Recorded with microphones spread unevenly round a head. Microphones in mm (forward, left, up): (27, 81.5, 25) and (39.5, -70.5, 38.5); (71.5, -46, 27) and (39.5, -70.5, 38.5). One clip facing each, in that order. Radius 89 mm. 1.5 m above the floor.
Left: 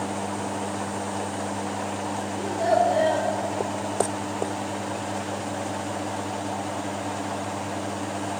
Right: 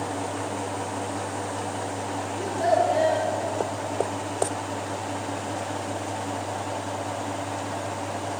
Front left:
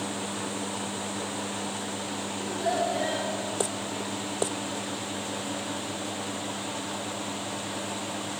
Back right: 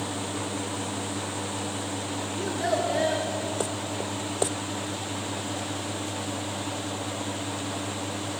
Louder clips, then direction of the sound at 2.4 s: Left 1 dB, back right 1 dB; 160° right.